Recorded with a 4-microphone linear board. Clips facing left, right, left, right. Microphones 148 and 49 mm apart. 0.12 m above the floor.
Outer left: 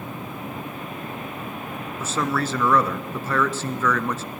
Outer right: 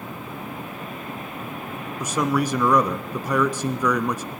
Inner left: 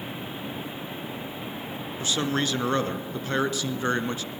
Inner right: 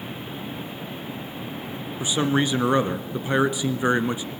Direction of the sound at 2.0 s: 15° right (ahead or behind).